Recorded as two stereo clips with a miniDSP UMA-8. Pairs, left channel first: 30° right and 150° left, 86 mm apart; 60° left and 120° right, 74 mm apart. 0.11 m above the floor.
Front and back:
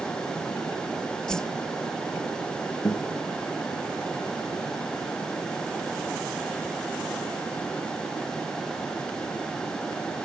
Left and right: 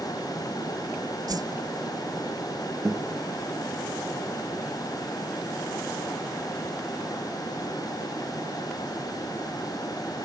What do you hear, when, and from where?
1.3 s a whoosh: 110° right, 0.7 m
2.9 s a guitar: 75° right, 2 m